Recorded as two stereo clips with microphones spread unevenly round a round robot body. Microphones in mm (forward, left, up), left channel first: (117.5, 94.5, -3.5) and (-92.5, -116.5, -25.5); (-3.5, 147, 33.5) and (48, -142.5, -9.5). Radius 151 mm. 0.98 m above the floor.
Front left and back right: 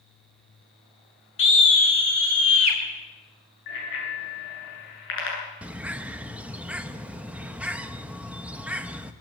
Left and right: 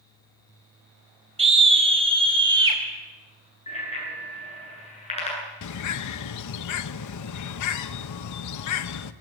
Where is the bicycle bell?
30° left, 9.5 m.